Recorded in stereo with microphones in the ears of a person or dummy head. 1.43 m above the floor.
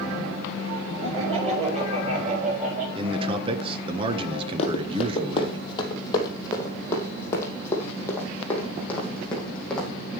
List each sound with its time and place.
1.0 s laughter: 25° right (ahead or behind), 8 m; by 2.9 s 45° right (ahead or behind), 8 m
3.0 s a man speaking: 25° right (ahead or behind), 1.5 m
4.6 s running footsteps: 35° left (ahead or behind), 2.5 m; by 9.9 s 10° left (ahead or behind), 5 m